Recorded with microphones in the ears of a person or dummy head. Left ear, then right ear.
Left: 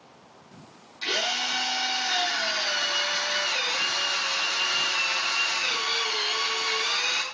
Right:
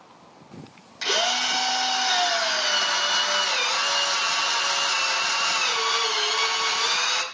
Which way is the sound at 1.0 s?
70° right (ahead or behind).